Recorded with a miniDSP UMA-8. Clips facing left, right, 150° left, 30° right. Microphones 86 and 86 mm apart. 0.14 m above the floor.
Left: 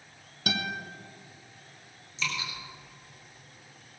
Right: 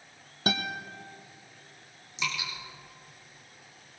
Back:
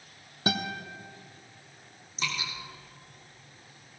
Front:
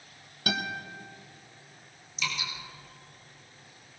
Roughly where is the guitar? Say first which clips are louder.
Right 1 dB, back 1 dB; behind right.